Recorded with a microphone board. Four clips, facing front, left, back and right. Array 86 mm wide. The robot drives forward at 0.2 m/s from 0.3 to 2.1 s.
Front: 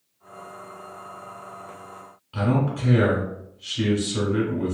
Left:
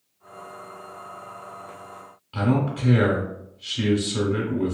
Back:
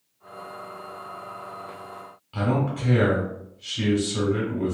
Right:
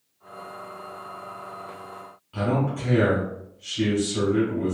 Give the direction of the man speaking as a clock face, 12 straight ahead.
8 o'clock.